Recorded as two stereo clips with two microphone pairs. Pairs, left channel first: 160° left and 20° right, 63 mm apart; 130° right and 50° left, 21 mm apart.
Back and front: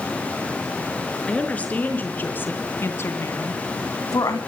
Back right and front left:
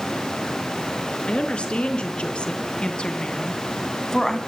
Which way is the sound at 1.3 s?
130° right.